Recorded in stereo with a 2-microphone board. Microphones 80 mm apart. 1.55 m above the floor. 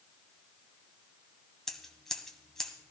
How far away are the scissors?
About 1.5 m.